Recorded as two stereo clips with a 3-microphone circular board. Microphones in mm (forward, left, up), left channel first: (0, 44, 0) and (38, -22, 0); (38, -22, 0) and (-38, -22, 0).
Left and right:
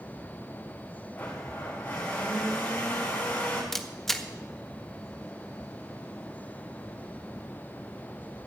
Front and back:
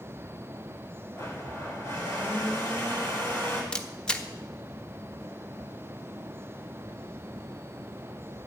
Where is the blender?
55° left, 6 m.